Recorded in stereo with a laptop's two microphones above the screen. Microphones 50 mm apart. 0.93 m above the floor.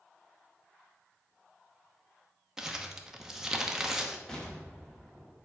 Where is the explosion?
15° left (ahead or behind), 1.2 m.